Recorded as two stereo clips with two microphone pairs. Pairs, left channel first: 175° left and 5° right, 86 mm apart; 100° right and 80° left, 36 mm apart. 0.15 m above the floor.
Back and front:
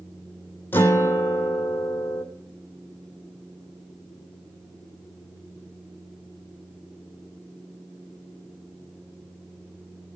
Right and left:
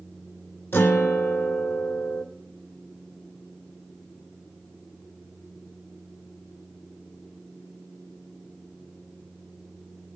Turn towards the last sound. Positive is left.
turn(degrees=-115)